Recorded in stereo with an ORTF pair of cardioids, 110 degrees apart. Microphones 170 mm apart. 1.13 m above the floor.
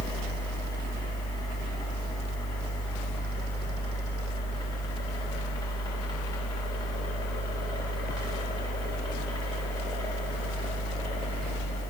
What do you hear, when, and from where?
0.0 s a fan: 25° left, 1.5 m